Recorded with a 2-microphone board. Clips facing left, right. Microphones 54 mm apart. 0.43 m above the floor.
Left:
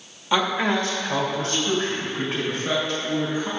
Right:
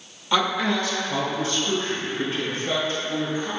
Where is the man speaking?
10° left (ahead or behind), 1.3 m; by 3.5 s 75° left (ahead or behind), 5.5 m.